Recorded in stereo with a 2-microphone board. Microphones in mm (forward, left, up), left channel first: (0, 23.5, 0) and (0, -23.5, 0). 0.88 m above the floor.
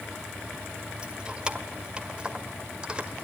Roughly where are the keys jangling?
Right.